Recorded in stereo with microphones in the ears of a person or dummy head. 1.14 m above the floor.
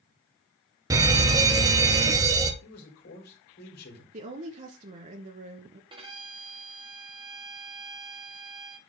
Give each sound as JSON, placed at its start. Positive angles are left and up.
{"t": 0.9, "sound": "a fire alarm", "side_deg": -20, "distance_m": 1.1}
{"t": 2.6, "sound": "a man speaking", "side_deg": 65, "distance_m": 3.5}
{"t": 4.1, "sound": "a woman speaking", "side_deg": -40, "distance_m": 1.2}
{"t": 5.9, "sound": "a violin", "side_deg": -25, "distance_m": 2.0}